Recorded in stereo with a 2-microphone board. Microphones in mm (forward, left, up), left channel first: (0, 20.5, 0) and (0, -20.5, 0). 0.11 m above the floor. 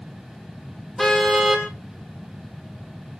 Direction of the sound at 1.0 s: 5° left (ahead or behind).